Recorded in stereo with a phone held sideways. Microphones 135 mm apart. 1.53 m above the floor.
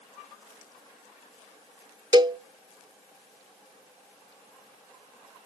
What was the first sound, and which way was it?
A cowbell, 35° right (ahead or behind).